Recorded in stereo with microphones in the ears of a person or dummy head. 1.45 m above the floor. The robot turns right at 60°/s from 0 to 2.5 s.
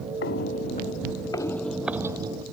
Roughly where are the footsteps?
Left.